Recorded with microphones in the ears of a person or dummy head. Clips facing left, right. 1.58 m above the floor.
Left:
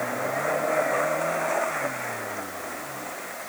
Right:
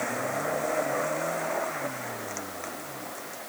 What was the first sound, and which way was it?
Only background noise.